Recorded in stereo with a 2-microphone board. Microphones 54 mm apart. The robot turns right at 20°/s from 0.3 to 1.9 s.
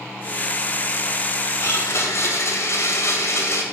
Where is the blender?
60° left (ahead or behind), 2 m.